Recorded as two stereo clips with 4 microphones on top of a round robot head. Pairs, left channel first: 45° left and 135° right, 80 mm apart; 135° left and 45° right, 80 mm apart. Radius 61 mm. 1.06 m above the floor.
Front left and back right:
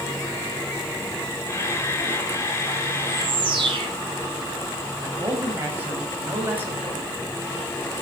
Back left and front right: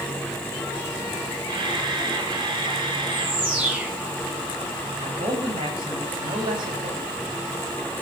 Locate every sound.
1.5 s a camera shutter: 15° right, 4 m
3.1 s a bird: 115° right, 6.5 m
5.0 s a man speaking: 70° right, 6 m